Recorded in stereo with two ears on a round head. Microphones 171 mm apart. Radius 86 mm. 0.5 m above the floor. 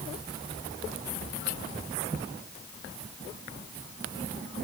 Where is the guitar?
No guitar in this recording.